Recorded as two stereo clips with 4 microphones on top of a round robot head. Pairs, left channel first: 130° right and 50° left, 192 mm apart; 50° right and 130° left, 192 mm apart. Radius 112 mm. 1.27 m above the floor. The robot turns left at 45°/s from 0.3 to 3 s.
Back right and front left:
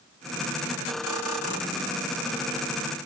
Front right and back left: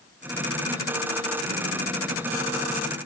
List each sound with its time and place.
Only background noise.